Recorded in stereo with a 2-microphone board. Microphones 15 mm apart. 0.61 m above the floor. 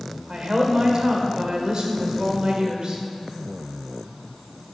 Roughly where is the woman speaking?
Right.